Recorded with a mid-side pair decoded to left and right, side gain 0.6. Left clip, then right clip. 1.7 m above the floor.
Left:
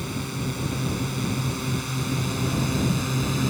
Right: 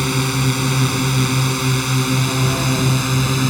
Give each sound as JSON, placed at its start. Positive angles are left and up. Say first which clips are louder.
{"t": 0.0, "sound": "a drone", "louder": "right 12 dB", "azimuth_deg": -60}